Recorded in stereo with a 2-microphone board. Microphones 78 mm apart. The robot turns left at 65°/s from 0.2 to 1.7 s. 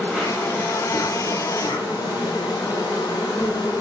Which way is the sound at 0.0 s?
Straight behind.